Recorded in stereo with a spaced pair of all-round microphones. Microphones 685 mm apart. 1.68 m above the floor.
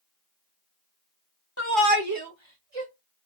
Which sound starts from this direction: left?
A shout, at 1.6 s.